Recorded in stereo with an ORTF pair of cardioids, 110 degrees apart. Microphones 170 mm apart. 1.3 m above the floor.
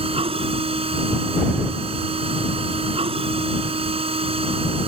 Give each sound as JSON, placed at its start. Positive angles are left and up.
{"t": 0.0, "sound": "a machine running", "azimuth_deg": -35}